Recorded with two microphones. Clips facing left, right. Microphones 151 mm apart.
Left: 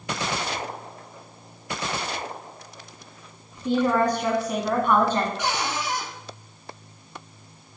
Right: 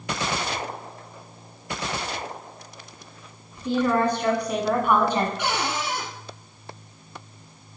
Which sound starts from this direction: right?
A cupboard door, at 5.4 s.